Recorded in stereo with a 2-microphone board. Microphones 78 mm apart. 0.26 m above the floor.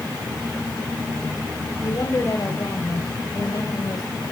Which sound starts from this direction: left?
A woman speaking, at 1.8 s.